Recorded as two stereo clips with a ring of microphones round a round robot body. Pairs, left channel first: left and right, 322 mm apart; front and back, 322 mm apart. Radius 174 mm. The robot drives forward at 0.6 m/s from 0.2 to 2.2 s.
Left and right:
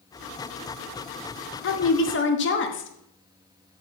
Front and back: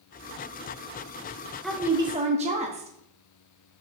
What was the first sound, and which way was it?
A woman speaking, 85° left.